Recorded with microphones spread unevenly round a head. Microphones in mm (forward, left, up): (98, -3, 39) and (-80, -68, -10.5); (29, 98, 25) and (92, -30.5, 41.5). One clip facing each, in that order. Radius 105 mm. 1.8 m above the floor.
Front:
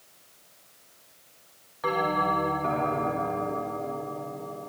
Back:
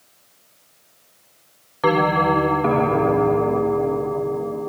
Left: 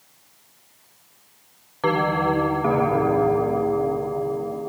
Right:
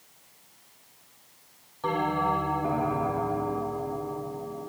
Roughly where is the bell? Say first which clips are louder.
Back 9 dB, left 6 dB; behind.